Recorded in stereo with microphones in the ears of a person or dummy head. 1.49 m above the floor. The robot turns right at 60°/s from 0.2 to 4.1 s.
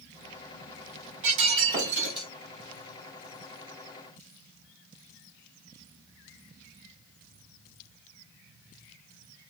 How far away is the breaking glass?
About 2.5 m.